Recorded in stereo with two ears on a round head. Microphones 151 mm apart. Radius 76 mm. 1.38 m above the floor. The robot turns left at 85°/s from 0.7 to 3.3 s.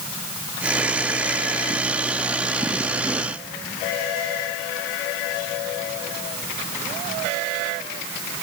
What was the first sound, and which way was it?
Only background noise.